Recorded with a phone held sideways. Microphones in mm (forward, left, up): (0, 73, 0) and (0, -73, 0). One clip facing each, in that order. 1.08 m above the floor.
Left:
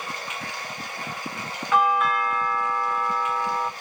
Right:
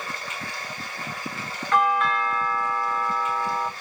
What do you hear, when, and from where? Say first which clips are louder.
0.0 s running water: left 1 dB; 15° left (ahead or behind), 2.5 m
1.7 s a doorbell: even; 5° left (ahead or behind), 0.6 m